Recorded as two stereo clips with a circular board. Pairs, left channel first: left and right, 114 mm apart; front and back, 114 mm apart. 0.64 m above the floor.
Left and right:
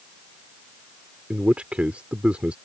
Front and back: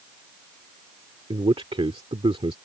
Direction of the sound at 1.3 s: 165° right.